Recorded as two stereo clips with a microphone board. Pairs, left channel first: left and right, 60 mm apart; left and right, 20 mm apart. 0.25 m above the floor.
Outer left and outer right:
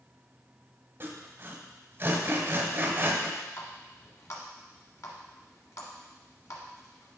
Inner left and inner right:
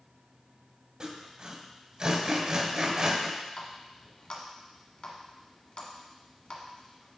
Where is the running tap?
55° left (ahead or behind), 1.7 m.